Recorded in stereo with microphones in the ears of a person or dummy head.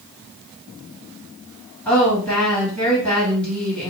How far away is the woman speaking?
About 1.9 m.